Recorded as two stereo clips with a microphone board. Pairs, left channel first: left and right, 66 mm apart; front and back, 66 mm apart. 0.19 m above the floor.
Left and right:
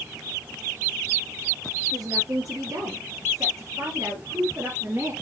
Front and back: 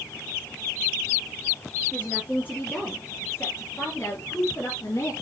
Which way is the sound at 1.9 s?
75° right.